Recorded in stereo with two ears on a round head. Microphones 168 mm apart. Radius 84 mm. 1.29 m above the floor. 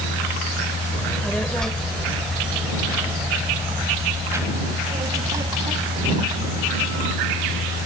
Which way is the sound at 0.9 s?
10° left (ahead or behind).